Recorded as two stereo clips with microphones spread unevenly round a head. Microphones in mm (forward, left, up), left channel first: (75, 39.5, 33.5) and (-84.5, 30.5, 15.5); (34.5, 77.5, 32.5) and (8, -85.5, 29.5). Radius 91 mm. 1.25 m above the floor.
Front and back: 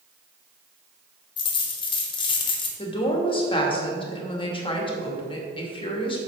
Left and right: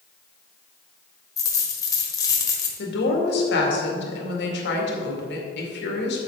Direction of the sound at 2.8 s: 65° left.